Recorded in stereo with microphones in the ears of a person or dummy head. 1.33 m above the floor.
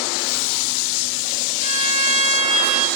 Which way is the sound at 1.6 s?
25° right (ahead or behind).